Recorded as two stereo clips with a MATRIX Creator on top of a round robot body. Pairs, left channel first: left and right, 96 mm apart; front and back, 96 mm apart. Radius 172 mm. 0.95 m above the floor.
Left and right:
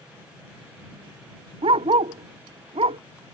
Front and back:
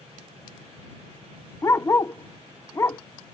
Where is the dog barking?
65° right.